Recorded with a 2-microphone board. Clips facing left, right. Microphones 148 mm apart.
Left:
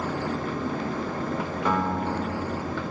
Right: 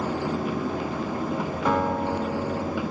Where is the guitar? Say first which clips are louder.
Right 2 dB; 10° right (ahead or behind), 2 m.